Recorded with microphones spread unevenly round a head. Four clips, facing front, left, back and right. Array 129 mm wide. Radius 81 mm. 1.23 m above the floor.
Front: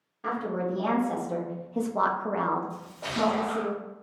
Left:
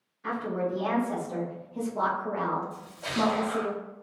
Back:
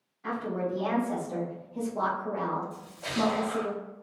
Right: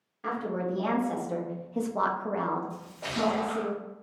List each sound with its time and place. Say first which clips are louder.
0.2 s a woman speaking: left 1 dB, front 2 dB; 55° right, 1.4 m; by 3.7 s 70° left, 0.9 m
2.7 s a splash: left 2 dB, front 1 dB; 65° right, 1.2 m